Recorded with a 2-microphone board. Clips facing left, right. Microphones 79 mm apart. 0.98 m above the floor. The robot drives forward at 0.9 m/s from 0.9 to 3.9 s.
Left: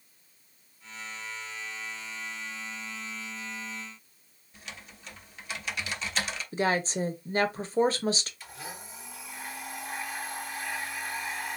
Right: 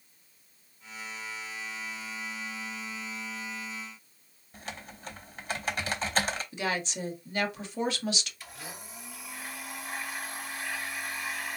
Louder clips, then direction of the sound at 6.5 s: Left 9 dB; 35° left (ahead or behind).